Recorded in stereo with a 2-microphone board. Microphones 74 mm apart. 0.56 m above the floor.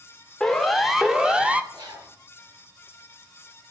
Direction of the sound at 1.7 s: 80° right.